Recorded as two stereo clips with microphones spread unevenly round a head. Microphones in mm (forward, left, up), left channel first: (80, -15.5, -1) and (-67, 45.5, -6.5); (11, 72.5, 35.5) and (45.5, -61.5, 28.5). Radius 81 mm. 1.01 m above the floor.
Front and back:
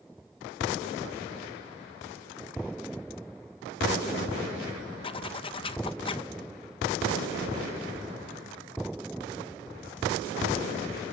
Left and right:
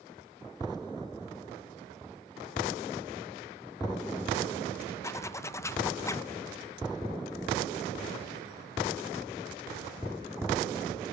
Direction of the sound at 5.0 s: 35° left.